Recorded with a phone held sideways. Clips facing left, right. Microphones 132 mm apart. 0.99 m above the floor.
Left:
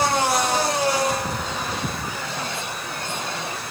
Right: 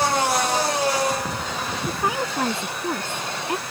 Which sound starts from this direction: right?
A woman speaking, at 1.9 s.